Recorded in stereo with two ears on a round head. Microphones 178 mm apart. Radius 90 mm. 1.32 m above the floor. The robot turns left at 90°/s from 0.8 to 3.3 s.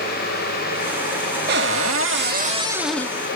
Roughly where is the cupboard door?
Ahead right.